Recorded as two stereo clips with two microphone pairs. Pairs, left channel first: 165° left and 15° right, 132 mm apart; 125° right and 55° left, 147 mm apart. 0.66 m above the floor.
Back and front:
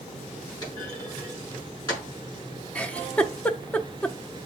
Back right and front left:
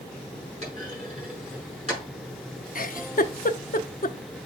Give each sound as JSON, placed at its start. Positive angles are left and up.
{"t": 0.6, "sound": "a clunk", "azimuth_deg": 100, "distance_m": 6.5}
{"t": 2.8, "sound": "a giggle", "azimuth_deg": -110, "distance_m": 0.6}